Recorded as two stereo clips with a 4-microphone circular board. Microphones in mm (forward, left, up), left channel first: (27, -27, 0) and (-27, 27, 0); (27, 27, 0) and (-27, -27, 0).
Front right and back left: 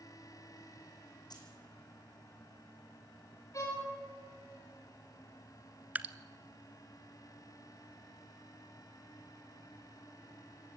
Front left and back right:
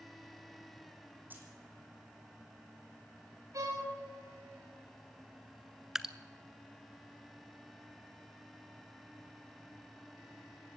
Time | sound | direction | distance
1.3 | keys jangling | 70° right | 4 m
3.5 | a violin | 90° right | 5.5 m
6.0 | dripping | 155° left | 0.8 m